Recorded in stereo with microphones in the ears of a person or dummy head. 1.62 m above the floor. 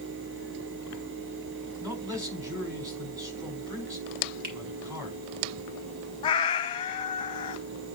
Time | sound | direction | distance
1.8 | a man speaking | 20° right (ahead or behind) | 4.5 m
4.4 | a finger snap | 45° right (ahead or behind) | 2 m
6.2 | a cat meowing | 25° left (ahead or behind) | 1.1 m